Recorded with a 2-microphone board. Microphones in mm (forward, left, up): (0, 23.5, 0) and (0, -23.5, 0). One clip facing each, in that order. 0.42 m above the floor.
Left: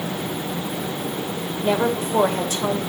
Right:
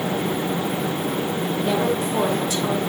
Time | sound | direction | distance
1.6 | a woman speaking | 35° left (ahead or behind) | 1.6 m